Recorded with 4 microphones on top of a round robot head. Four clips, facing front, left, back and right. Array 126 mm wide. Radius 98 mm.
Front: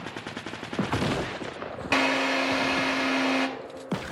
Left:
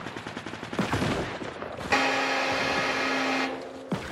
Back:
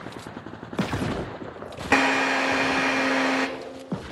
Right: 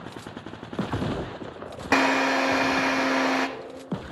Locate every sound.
1.9 s a drill: 125° right, 1.0 m